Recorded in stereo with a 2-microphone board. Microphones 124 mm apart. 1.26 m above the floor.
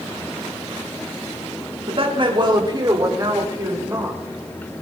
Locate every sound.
1.9 s a woman speaking: 50° right (ahead or behind), 3 m; by 4.2 s 20° right (ahead or behind), 5.5 m